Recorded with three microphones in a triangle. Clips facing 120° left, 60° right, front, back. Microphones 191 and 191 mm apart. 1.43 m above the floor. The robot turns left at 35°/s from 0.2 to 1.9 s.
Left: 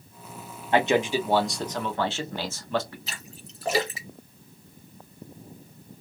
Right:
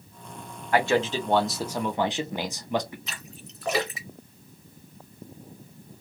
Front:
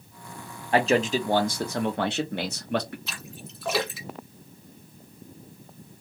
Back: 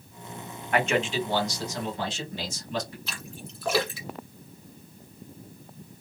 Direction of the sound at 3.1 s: 90° left.